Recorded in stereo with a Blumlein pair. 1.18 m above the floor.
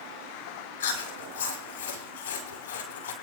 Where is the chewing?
65° left, 6.5 m.